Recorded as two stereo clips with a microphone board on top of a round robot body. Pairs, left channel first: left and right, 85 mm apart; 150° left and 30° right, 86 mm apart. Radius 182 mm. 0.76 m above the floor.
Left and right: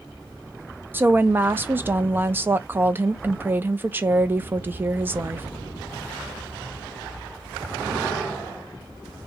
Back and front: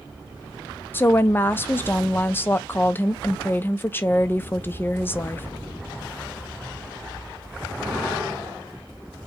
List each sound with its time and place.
0.9 s a woman speaking: 150° right, 0.6 m